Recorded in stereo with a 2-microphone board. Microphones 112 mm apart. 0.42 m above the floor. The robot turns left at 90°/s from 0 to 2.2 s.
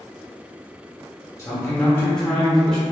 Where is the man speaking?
25° left (ahead or behind), 0.9 m; by 2.8 s 5° left (ahead or behind), 0.9 m.